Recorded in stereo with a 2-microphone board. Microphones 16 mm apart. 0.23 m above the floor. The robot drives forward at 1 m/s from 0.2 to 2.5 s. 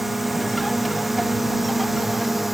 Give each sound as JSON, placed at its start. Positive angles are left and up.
{"t": 0.0, "sound": "a drone", "side_deg": -10}